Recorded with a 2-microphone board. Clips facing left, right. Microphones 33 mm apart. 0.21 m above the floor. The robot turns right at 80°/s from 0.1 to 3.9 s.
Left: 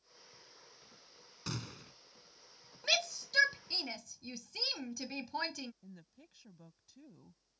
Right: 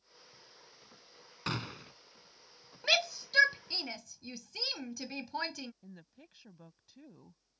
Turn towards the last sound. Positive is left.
turn(degrees=-20)  # may be behind; listen again after turning